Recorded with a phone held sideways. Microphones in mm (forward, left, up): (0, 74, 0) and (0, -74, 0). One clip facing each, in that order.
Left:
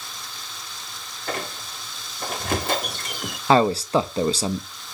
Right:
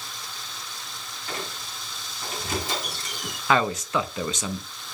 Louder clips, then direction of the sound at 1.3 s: Left 5 dB; 60° left (ahead or behind).